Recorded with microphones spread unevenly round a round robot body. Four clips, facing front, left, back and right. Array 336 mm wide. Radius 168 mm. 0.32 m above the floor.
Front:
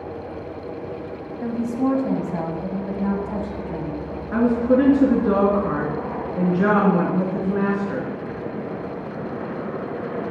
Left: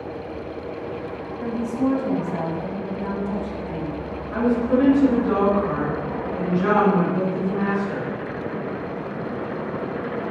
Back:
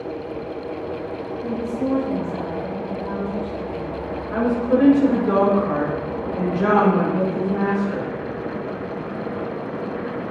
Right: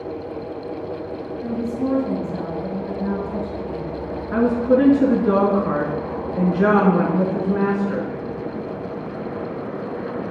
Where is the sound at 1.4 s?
15° left, 1.8 m.